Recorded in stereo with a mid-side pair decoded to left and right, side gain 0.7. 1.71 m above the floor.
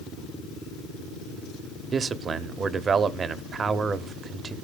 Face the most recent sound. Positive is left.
turn(degrees=-30)